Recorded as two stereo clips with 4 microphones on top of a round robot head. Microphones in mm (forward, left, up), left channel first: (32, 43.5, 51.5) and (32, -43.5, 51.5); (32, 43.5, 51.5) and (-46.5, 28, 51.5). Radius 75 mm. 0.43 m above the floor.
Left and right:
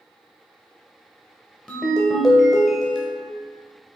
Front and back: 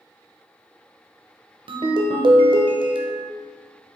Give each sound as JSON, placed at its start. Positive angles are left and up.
{"t": 1.7, "sound": "a ringtone", "azimuth_deg": 175, "distance_m": 0.6}